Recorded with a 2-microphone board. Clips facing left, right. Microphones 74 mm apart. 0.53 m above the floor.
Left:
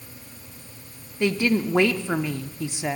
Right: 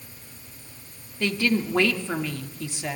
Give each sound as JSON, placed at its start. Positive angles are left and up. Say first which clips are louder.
{"t": 1.2, "sound": "a woman speaking", "louder": "left 2 dB", "side_deg": 20, "distance_m": 0.7}